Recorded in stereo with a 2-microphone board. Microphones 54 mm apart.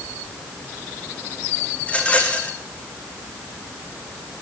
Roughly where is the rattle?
Left.